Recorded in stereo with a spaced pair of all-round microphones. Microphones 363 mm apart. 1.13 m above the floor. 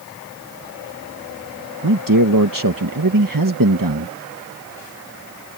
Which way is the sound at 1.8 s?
65° right (ahead or behind).